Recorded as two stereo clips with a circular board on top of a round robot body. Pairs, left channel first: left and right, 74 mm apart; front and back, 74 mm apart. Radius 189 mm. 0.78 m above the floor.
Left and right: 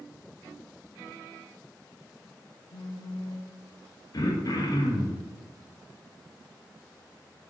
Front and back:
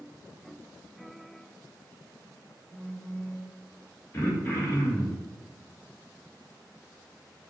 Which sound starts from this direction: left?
A phone buzzing, at 2.7 s.